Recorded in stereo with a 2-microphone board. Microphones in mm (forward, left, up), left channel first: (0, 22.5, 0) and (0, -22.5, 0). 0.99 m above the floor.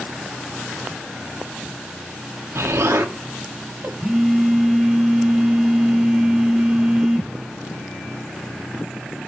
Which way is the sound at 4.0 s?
15° right (ahead or behind).